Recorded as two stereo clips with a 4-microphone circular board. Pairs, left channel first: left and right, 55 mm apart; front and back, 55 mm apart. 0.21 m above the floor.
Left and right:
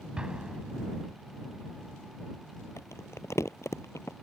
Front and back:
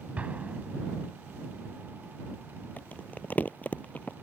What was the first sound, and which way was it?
An explosion, 150° right.